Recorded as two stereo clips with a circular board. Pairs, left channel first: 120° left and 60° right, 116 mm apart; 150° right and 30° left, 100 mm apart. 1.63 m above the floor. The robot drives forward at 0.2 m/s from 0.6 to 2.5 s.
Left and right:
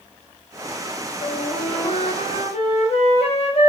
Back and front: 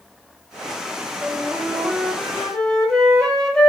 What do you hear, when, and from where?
1.2 s a flute: 110° left, 0.8 m; by 3.7 s 125° left, 1.0 m